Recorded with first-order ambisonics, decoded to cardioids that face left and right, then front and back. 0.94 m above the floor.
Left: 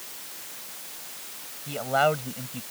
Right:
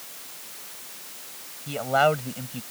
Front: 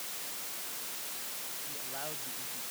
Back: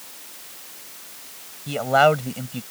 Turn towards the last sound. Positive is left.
turn(degrees=-170)